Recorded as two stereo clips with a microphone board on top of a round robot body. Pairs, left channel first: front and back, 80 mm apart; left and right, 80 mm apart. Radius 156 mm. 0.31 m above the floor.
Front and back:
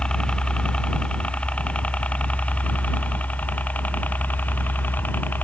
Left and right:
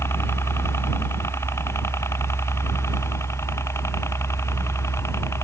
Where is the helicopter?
70° left; by 5.5 s 55° left.